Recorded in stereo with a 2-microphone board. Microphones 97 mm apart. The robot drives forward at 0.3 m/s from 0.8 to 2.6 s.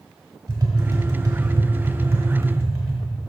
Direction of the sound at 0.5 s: 40° right (ahead or behind).